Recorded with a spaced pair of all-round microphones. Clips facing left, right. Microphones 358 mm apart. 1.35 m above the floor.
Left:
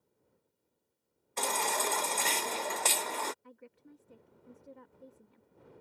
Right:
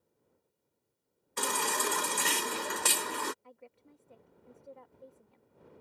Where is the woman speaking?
25° left (ahead or behind).